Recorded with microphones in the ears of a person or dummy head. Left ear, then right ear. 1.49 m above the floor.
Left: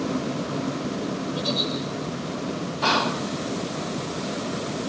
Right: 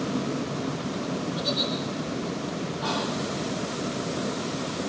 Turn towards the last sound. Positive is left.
turn(degrees=60)  # may be behind; listen again after turning